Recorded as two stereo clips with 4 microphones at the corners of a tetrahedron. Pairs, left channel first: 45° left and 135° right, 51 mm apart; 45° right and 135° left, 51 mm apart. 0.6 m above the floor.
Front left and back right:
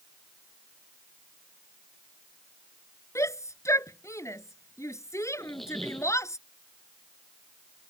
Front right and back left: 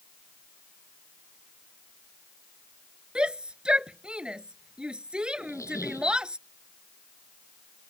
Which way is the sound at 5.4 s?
45° right.